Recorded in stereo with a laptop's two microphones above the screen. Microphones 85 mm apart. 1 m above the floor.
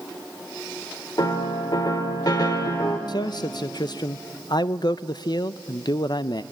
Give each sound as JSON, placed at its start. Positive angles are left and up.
{"t": 1.2, "sound": "a piano", "side_deg": 50, "distance_m": 1.3}
{"t": 3.1, "sound": "a man speaking", "side_deg": 55, "distance_m": 0.5}